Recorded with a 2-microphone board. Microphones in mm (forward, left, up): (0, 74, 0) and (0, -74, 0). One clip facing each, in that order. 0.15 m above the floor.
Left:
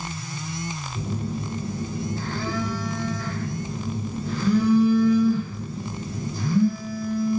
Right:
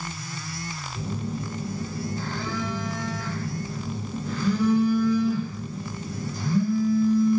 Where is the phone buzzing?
5° left (ahead or behind), 1.9 m.